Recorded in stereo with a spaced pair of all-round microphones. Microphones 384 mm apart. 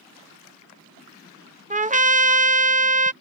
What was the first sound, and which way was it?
A trumpet, 20° right (ahead or behind).